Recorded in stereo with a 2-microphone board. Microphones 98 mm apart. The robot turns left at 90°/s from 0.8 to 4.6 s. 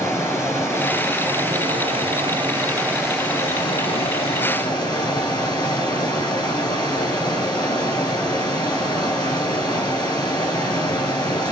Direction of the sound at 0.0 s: 25° left.